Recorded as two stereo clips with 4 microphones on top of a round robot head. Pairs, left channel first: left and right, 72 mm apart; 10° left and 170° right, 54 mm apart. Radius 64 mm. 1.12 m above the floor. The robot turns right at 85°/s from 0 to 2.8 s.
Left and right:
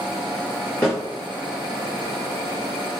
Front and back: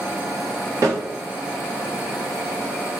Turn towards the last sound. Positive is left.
turn(degrees=-25)